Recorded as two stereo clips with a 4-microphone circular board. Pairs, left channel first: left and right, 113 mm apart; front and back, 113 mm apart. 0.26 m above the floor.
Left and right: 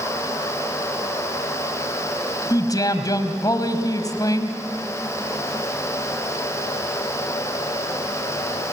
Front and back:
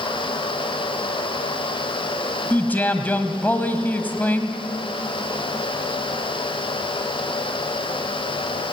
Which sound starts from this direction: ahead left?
A man speaking, at 2.5 s.